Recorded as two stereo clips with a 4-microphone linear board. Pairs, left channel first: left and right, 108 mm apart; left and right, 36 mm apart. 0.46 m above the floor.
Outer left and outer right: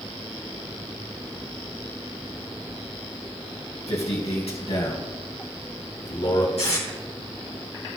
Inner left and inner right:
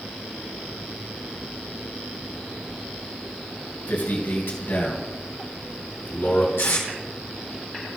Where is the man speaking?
75° left (ahead or behind), 3 m; by 6.5 s 60° left (ahead or behind), 4 m.